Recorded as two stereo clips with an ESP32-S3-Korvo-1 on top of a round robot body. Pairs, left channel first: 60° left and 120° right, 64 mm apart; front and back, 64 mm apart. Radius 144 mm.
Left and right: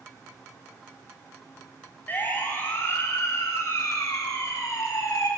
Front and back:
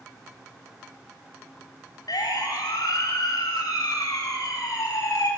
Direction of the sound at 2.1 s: 5° right.